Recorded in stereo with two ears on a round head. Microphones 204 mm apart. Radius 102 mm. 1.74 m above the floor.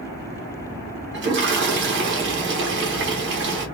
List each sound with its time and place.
1.1 s a toilet flushing: 55° right (ahead or behind), 1.1 m